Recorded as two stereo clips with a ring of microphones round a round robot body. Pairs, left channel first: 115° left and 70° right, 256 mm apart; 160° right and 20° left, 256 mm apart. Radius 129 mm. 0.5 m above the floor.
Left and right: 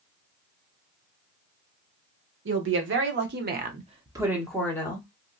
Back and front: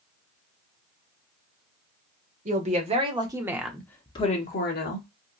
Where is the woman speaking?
35° right, 1.3 m; by 5.1 s straight behind, 0.9 m.